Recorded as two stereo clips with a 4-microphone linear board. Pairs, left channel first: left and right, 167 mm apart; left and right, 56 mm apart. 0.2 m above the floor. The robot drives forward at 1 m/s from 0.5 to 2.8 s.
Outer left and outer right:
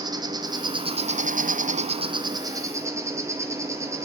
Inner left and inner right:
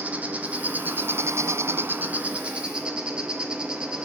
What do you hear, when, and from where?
0.0 s an insect: 25° right (ahead or behind), 1.1 m; by 4.0 s 20° right (ahead or behind), 1.5 m